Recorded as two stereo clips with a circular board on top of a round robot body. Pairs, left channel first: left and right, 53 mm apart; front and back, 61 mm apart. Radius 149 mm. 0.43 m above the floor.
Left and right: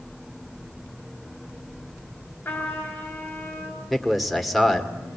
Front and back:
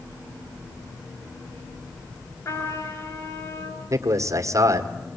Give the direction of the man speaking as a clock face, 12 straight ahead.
6 o'clock.